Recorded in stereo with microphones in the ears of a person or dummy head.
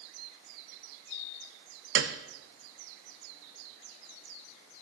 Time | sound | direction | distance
1.9 | a piano | 70° right (ahead or behind) | 1.0 m